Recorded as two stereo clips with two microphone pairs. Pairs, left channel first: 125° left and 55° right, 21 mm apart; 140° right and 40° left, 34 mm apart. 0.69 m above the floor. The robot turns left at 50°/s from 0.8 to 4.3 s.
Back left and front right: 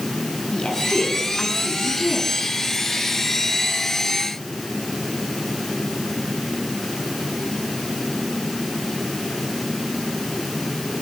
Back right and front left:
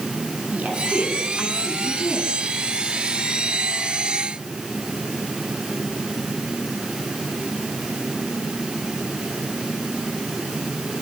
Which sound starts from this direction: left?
A woman speaking, at 0.5 s.